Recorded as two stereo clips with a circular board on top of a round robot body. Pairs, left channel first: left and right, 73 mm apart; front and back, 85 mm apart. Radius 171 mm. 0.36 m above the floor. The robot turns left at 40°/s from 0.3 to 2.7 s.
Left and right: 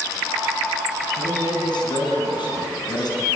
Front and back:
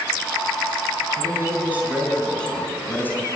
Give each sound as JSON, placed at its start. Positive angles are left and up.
{"t": 1.2, "sound": "a man speaking", "azimuth_deg": 130, "distance_m": 4.5}